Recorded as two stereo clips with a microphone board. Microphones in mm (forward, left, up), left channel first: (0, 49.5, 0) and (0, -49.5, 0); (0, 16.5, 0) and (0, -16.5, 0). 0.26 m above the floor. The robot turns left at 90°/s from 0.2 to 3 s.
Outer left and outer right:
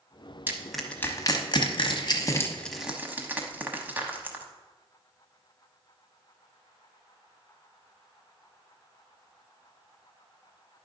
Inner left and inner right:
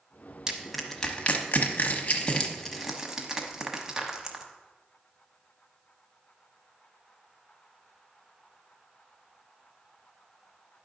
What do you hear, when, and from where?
0.5 s crushing: 20° right (ahead or behind), 1.0 m